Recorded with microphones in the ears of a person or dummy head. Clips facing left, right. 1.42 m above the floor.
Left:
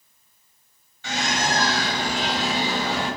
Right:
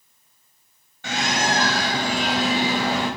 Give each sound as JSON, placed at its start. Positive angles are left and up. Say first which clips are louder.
{"t": 1.0, "sound": "a bird", "louder": "right 2 dB", "side_deg": -45, "distance_m": 0.8}